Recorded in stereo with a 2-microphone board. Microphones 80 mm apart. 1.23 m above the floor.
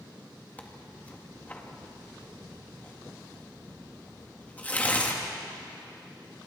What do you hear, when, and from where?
0.6 s tearing paper: 20° left (ahead or behind), 2 m